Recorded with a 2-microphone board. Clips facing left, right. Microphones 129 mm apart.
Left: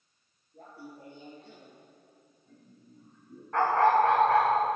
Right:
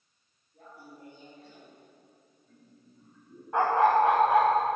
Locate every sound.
0.5 s laughter: 30° left (ahead or behind), 3.5 m; by 3.4 s 5° left (ahead or behind), 4.5 m
3.5 s a dog barking: 15° right (ahead or behind), 4 m